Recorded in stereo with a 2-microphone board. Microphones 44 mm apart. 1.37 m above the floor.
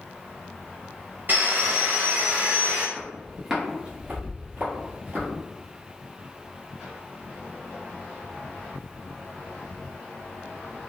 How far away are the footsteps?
About 1.4 m.